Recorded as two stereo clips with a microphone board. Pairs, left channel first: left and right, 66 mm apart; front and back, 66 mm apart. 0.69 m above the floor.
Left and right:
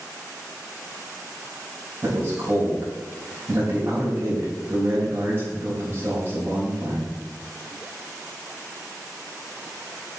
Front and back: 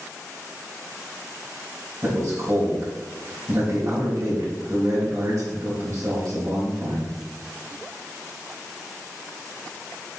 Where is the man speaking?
145° right, 4.5 m.